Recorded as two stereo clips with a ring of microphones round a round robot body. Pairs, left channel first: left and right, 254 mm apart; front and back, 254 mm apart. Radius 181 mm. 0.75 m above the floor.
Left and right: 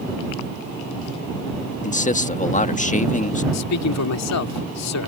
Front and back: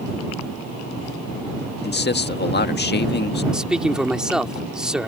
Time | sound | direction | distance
1.8 | a man speaking | 35° left | ?
3.5 | a man speaking | 95° left | ?